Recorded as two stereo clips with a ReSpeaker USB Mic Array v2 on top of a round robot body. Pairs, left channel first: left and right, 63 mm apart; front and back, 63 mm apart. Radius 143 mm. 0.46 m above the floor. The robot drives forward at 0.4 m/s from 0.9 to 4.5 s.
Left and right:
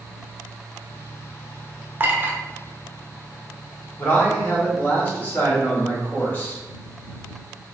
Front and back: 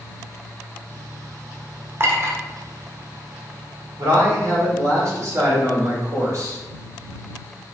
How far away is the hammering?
No hammering in this recording.